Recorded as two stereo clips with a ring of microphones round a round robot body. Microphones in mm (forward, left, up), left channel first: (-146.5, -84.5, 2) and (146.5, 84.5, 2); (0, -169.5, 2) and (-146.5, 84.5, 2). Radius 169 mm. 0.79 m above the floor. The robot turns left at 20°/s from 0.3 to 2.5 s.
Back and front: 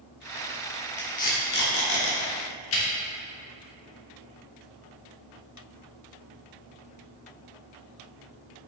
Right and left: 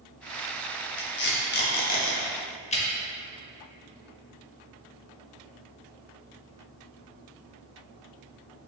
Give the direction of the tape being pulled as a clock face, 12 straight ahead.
3 o'clock.